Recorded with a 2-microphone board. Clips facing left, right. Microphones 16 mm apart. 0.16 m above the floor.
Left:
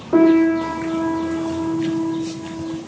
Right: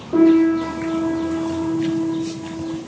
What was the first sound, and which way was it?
A piano, 70° left (ahead or behind).